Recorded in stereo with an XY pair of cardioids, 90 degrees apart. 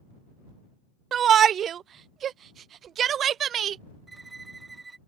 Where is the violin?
25° right.